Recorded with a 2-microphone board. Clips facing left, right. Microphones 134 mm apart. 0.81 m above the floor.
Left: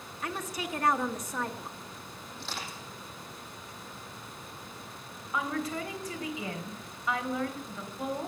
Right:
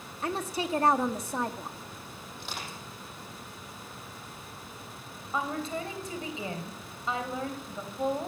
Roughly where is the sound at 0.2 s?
Right.